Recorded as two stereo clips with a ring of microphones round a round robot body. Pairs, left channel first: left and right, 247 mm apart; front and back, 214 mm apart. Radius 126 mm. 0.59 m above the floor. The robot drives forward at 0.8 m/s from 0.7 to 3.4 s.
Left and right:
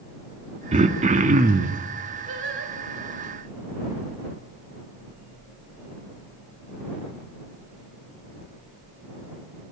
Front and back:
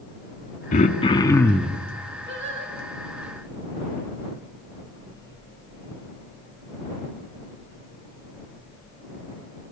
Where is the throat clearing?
40° right, 1.5 m; by 1.8 s 100° right, 1.3 m.